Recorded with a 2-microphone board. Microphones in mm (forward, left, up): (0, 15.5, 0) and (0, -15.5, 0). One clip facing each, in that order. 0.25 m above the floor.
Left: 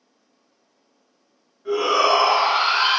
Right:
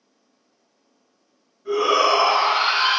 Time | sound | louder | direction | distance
1.6 | a shout | even | 35° left (ahead or behind) | 1.5 m